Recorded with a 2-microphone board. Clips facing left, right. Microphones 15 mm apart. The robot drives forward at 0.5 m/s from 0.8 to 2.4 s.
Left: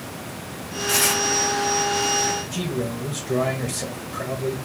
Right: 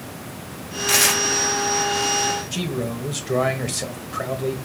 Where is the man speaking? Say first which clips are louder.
Right 1 dB; 45° right (ahead or behind), 1.4 m.